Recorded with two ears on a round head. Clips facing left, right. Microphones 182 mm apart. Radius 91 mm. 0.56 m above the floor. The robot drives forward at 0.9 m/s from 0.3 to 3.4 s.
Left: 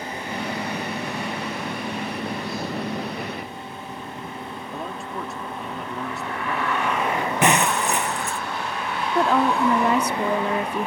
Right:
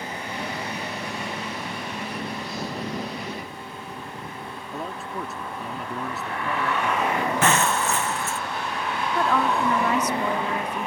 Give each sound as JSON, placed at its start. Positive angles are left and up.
{"t": 4.7, "sound": "a man speaking", "side_deg": 0}
{"t": 7.4, "sound": "breaking glass", "side_deg": 15}
{"t": 9.2, "sound": "a woman speaking", "side_deg": 25}